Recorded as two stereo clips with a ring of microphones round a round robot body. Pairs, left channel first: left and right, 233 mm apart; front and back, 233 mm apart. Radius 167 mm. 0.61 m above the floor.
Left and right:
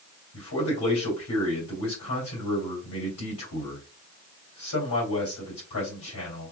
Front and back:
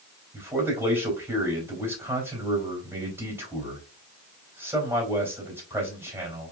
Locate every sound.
0.3 s a man speaking: 100° left, 3.5 m